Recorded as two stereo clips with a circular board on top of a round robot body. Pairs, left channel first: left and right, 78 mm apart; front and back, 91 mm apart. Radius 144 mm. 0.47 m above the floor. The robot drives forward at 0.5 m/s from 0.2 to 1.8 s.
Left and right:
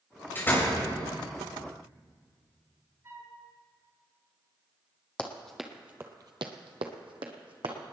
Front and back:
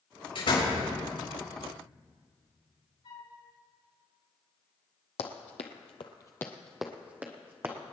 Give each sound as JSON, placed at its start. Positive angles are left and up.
{"t": 0.3, "sound": "a door slam", "azimuth_deg": 25, "distance_m": 8.0}
{"t": 3.0, "sound": "a flute", "azimuth_deg": -35, "distance_m": 7.0}
{"t": 5.2, "sound": "running footsteps", "azimuth_deg": 15, "distance_m": 1.4}